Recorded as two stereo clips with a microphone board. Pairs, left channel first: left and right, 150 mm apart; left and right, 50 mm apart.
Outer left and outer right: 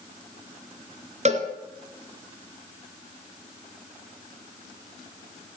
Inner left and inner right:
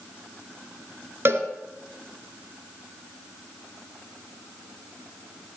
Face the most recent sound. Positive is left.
turn(degrees=-50)  # may be behind; listen again after turning